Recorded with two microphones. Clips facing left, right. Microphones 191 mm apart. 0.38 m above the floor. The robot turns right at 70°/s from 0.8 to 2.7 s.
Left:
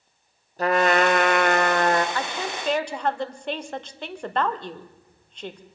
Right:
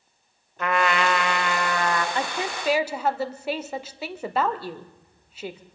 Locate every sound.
0.6 s a trumpet: 45° left, 0.9 m; by 2.0 s 135° left, 0.9 m
2.1 s a woman speaking: 20° right (ahead or behind), 0.8 m; by 5.6 s 5° right (ahead or behind), 0.8 m